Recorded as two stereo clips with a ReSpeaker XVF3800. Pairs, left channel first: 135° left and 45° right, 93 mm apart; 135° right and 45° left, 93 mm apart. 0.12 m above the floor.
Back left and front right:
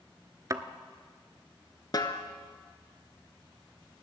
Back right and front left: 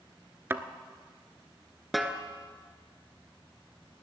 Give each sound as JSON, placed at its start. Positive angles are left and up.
{"t": 0.5, "sound": "a thud", "azimuth_deg": -10, "distance_m": 0.6}
{"t": 1.9, "sound": "a snare drum", "azimuth_deg": 135, "distance_m": 0.9}